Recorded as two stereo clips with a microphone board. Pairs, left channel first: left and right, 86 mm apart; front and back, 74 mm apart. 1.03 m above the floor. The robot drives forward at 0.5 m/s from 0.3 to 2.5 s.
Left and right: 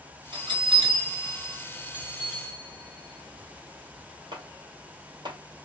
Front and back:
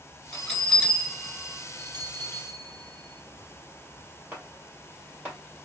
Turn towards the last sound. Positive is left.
turn(degrees=-115)